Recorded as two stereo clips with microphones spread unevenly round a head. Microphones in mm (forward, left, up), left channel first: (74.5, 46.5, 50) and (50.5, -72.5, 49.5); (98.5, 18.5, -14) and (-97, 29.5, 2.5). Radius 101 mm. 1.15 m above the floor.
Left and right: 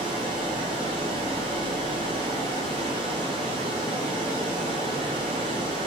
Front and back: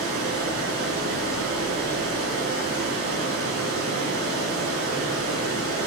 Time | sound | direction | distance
0.0 | running water | 165° right | 0.9 m